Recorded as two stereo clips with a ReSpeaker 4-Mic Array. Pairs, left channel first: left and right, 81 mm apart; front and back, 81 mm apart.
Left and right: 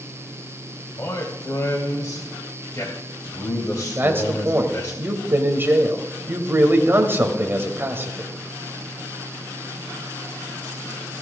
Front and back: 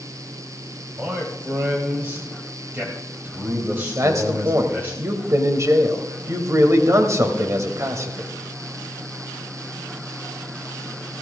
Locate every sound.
1.0 s a man speaking: 125° left, 1.9 m
4.0 s a man speaking: 145° right, 1.5 m